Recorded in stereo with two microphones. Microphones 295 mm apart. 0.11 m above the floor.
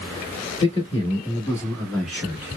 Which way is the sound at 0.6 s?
25° left (ahead or behind).